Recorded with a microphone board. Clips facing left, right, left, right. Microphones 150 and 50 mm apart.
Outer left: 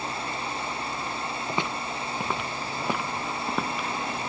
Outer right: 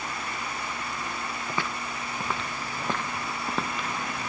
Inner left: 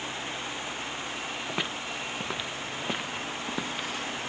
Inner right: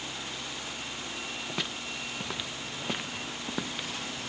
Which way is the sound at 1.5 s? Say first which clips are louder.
Outer left 2 dB, inner left 3 dB; 20° left (ahead or behind).